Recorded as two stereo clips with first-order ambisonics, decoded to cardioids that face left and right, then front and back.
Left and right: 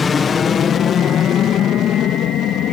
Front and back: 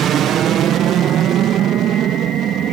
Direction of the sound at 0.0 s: 150° left.